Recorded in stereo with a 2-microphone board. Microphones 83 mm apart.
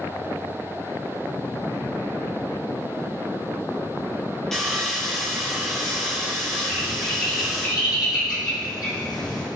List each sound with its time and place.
4.5 s sawing: 5° left (ahead or behind), 4 m
6.7 s a bird: 60° left (ahead or behind), 3.5 m